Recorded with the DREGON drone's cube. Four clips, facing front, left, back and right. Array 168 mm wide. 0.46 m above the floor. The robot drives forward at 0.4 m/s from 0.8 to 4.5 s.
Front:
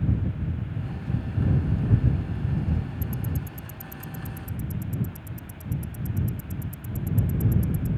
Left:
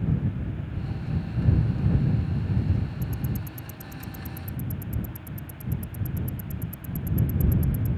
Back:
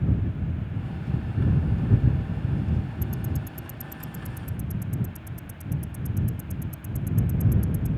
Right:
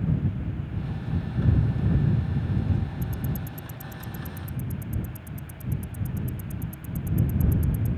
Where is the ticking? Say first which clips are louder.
Even, even; 90° left; by 7.9 s 120° left.